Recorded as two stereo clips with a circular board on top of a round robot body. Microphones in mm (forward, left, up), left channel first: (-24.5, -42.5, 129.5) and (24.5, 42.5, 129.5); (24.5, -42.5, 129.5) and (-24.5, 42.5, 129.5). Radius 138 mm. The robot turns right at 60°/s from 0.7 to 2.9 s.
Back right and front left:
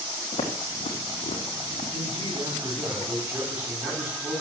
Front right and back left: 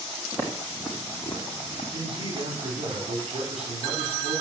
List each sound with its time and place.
0.3 s footsteps: 170° right, 3 m; by 1.8 s 95° right, 4 m
1.9 s a man speaking: 75° left, 4.5 m; by 4.4 s 135° left, 4.5 m